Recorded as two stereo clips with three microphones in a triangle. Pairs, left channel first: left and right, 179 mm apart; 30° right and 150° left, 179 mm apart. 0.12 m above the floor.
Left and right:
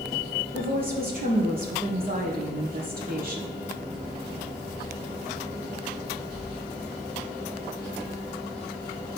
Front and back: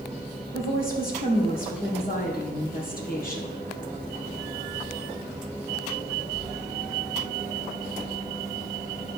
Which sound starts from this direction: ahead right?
A woman speaking, at 0.5 s.